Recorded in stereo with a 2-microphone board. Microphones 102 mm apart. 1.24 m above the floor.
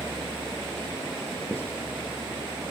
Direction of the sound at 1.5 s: 20° left (ahead or behind).